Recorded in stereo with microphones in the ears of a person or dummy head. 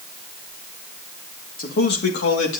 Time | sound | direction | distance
1.6 | a man speaking | 45° left (ahead or behind) | 2 m